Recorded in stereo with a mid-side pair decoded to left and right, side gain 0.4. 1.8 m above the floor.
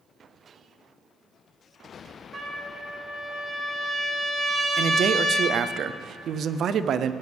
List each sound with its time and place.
2.3 s a trumpet: 40° right, 2 m
4.8 s a man speaking: 70° right, 0.6 m